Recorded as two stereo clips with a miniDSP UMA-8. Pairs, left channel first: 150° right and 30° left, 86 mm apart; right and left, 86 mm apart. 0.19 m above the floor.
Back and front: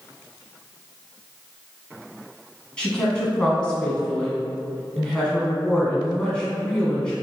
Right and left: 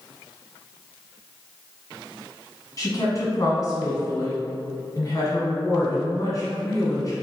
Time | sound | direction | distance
2.8 | a woman speaking | 75° right | 1.6 m